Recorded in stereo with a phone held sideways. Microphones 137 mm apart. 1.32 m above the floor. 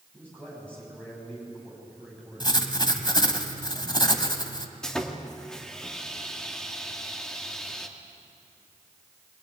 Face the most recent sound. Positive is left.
turn(degrees=5)  # may be behind; listen again after turning